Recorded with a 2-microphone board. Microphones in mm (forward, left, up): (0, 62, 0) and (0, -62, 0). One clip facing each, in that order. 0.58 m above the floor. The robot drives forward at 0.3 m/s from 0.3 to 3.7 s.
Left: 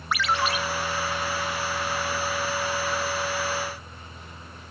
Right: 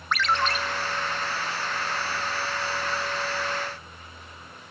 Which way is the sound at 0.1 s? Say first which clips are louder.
Even; 5° left (ahead or behind).